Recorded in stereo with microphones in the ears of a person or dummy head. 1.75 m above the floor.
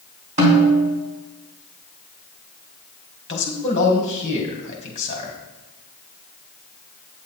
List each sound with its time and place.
0.4 s a snare drum: 35° right (ahead or behind), 3 m
3.3 s a man speaking: 35° left (ahead or behind), 2.5 m